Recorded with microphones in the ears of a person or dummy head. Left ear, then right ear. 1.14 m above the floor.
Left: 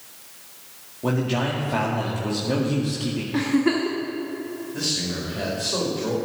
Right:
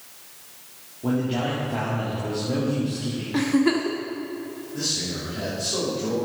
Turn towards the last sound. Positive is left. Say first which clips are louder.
# left 1 dB
turn(degrees=35)  # may be behind; listen again after turning